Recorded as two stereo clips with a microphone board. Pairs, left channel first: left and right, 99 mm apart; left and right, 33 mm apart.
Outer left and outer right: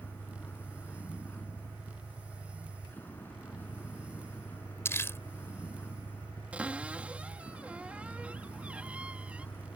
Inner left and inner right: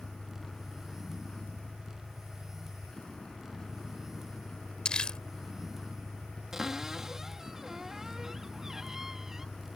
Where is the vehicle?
20° left (ahead or behind).